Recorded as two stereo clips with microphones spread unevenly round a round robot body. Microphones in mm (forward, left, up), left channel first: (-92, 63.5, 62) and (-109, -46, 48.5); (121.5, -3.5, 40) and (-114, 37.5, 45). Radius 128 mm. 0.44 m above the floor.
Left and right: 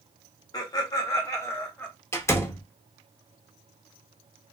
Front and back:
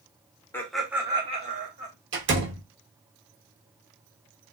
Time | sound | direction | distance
0.5 | laughter | 60° left | 0.8 m
2.1 | a door slam | 150° left | 0.9 m